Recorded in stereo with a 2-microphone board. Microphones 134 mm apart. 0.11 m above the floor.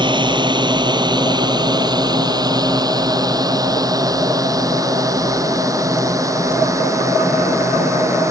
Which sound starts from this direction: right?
A drone, at 0.0 s.